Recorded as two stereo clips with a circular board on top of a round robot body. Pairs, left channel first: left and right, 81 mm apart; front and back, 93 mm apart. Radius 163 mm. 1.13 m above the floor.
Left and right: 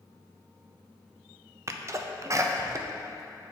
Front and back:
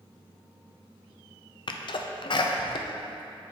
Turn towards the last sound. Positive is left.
turn(degrees=-35)